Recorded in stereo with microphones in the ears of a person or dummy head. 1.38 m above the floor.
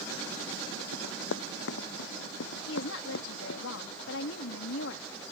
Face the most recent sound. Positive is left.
turn(degrees=70)  # may be behind; listen again after turning